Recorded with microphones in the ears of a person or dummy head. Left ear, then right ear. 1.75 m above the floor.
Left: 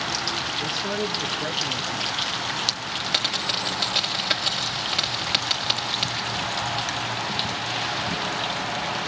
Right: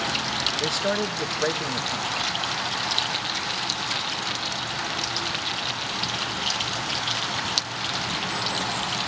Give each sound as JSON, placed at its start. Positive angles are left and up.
{"t": 0.6, "sound": "a man speaking", "side_deg": -40, "distance_m": 1.8}
{"t": 3.1, "sound": "a dropped coin", "side_deg": 30, "distance_m": 2.5}